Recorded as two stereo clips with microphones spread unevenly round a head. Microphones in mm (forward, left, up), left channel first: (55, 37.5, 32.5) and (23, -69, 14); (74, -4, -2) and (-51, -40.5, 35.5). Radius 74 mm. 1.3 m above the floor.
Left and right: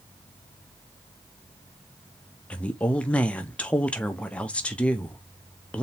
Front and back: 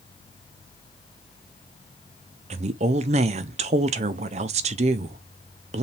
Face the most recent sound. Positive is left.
turn(degrees=160)